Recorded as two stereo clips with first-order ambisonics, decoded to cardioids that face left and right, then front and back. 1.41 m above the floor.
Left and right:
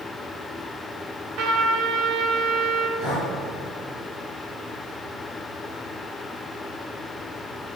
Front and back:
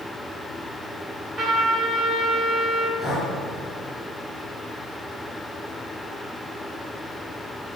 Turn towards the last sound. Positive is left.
turn(degrees=60)